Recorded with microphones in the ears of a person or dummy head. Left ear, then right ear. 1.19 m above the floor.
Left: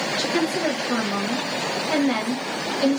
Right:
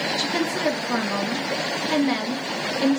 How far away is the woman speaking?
About 1.4 m.